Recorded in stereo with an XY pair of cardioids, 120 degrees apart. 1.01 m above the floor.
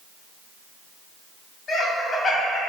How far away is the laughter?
About 1.4 m.